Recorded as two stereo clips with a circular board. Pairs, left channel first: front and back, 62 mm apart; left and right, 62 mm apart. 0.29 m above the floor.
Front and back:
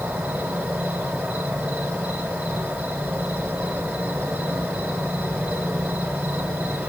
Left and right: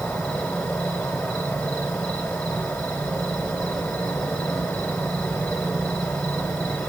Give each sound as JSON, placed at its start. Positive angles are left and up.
{"t": 0.0, "sound": "an insect", "azimuth_deg": 155, "distance_m": 2.5}